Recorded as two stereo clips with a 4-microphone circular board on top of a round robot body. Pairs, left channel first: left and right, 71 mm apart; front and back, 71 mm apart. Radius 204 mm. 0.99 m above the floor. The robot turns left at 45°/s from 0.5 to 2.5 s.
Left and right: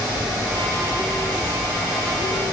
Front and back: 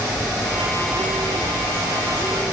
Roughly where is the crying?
I don't hear crying.